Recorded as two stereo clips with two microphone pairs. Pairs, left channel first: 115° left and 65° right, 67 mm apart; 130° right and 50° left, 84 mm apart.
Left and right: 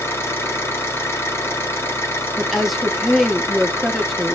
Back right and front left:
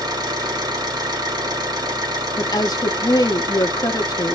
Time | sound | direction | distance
0.0 | an engine running | 70° left | 1.4 m
2.4 | a woman speaking | 155° right | 0.8 m